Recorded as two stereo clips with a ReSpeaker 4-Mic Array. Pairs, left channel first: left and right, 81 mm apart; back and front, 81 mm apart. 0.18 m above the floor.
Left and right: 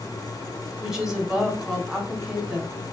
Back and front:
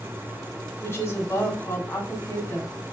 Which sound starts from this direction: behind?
A woman speaking, at 0.8 s.